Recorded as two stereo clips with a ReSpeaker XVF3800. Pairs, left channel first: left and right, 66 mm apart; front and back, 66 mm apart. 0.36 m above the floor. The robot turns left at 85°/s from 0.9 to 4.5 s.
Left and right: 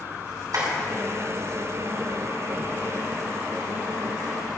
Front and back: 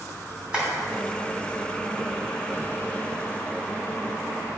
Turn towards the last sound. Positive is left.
turn(degrees=-55)